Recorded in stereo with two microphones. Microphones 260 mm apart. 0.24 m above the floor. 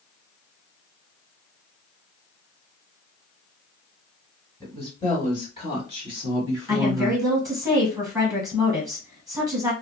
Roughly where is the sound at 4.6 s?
Centre.